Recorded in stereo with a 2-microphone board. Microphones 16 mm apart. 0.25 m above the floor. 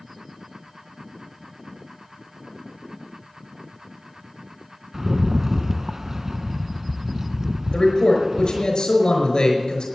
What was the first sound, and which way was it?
A rattle, 30° right (ahead or behind).